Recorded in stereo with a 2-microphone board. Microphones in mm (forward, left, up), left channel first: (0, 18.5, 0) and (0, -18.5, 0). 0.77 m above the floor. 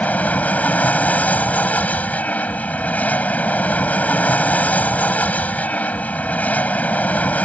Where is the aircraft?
45° left (ahead or behind).